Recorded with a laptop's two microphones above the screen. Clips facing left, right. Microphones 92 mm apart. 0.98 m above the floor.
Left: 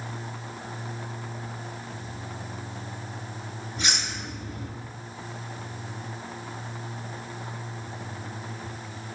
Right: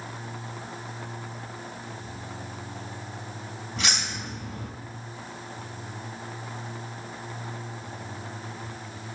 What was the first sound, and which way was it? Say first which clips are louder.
Keys jangling: right 1 dB; 85° right.